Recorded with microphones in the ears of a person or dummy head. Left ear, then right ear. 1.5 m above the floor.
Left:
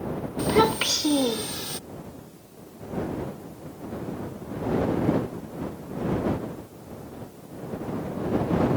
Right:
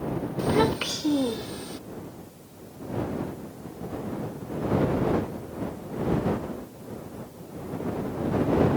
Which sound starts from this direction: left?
A child speaking, at 0.4 s.